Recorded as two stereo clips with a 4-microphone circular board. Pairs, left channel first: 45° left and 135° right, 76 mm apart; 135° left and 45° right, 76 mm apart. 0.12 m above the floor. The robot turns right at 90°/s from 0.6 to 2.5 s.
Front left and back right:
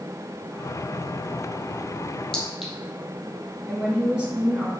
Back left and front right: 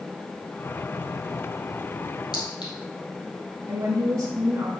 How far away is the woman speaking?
About 1.6 m.